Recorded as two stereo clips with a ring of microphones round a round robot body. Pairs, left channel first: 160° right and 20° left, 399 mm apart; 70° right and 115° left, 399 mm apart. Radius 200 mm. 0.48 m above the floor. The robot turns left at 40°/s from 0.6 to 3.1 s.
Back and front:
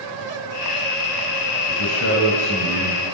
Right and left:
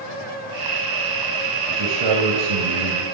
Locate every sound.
1.7 s a man speaking: 160° left, 3 m; by 3.0 s 105° left, 3 m